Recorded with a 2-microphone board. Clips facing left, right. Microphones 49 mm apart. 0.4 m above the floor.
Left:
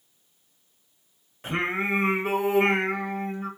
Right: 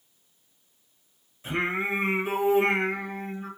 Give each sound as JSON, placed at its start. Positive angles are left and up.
{"t": 1.4, "sound": "singing", "side_deg": 60, "distance_m": 0.9}